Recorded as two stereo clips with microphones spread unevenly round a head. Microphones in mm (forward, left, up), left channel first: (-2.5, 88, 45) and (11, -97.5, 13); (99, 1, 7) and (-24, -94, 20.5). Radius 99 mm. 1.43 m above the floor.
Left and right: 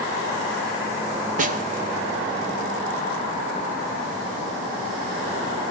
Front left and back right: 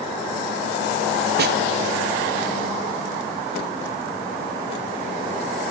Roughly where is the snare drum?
Behind right.